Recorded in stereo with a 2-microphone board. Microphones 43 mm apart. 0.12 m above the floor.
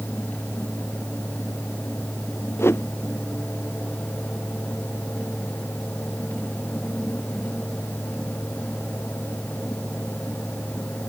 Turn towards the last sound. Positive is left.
turn(degrees=85)